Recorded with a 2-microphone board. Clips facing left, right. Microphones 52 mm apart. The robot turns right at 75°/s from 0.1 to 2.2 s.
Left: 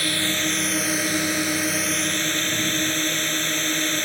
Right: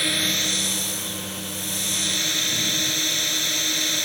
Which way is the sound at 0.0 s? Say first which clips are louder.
Left 1 dB; straight ahead.